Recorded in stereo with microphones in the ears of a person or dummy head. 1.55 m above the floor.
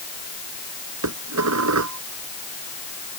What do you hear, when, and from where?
1.0 s dishes clattering: 90° right